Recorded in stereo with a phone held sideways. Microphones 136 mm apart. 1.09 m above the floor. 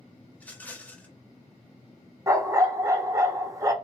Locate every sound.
0.3 s a rattle: 10° left (ahead or behind), 0.6 m
2.3 s a dog barking: 25° right (ahead or behind), 0.5 m